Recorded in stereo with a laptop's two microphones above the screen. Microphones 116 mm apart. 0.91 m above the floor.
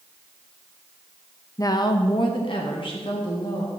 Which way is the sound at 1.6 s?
30° left (ahead or behind).